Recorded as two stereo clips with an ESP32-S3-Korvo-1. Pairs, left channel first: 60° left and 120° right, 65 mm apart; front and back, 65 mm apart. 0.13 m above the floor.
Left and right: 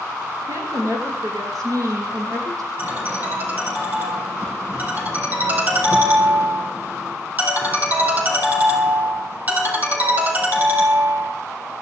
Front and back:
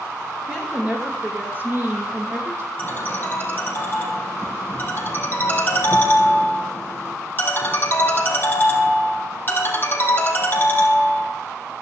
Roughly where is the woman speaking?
Right.